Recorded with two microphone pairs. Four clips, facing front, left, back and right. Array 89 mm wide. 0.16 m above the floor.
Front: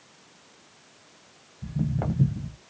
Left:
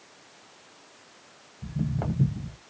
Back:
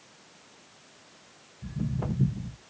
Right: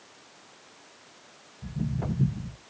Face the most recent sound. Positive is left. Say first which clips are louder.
# left 2 dB, front 4 dB
turn(degrees=40)